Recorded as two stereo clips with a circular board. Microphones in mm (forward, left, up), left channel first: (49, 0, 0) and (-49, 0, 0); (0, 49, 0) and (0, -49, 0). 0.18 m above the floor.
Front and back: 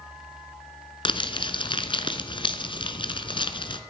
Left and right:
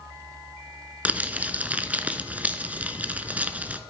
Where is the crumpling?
15° right, 1.0 m.